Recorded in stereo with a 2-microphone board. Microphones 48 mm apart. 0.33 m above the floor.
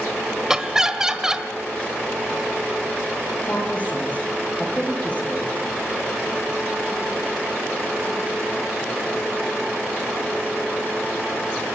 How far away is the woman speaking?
About 8 m.